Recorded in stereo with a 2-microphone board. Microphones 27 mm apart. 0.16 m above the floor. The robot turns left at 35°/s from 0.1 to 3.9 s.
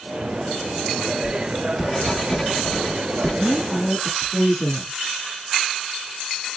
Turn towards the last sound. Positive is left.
turn(degrees=20)  # may be behind; listen again after turning